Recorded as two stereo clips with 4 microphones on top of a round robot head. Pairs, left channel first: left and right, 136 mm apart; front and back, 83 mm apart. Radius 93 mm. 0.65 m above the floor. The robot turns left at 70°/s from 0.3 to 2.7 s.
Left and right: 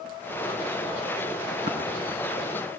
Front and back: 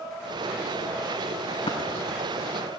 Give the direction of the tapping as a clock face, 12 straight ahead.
1 o'clock.